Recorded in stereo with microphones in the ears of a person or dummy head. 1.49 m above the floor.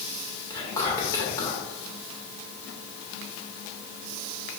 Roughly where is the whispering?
Centre.